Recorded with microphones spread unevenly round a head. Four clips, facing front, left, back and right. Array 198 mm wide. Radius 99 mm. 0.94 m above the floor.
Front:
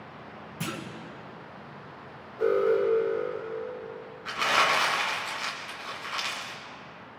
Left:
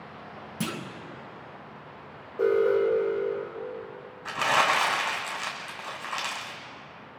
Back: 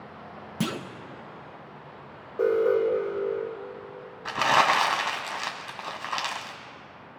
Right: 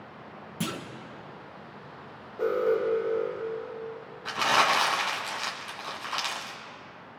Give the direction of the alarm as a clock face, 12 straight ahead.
7 o'clock.